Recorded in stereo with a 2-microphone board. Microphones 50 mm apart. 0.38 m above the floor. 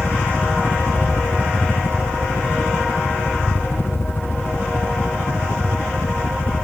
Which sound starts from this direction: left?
A helicopter, at 0.0 s.